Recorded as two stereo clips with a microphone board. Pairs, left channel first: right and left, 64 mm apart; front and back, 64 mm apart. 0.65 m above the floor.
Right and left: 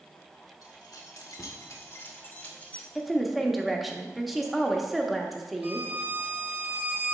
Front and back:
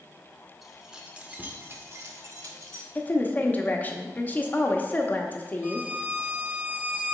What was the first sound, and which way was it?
Keys jangling, 90° right.